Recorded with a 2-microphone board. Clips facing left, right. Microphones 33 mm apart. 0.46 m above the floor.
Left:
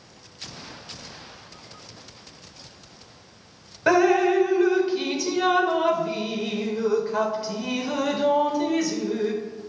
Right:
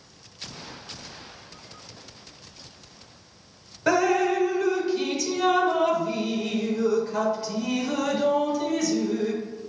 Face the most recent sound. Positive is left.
turn(degrees=15)  # may be behind; listen again after turning